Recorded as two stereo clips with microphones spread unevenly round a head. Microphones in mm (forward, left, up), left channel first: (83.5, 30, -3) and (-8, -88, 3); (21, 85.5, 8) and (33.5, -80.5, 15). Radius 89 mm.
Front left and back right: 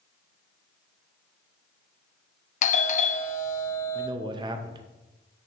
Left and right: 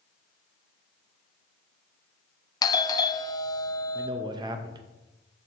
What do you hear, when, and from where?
2.6 s a doorbell: 35° left, 0.5 m
4.0 s a man speaking: 120° right, 0.5 m